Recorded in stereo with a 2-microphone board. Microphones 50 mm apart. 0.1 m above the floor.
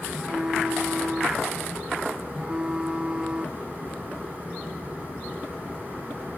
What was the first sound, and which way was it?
A phone buzzing, 20° right (ahead or behind).